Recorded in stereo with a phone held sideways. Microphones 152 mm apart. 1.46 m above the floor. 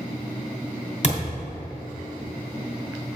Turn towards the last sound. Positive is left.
turn(degrees=50)  # may be behind; listen again after turning